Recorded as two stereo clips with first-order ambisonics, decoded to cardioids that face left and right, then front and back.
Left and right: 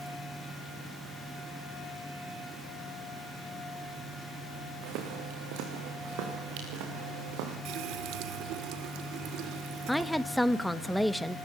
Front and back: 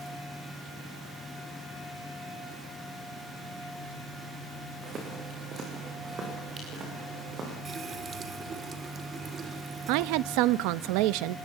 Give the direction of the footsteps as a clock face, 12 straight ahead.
4 o'clock.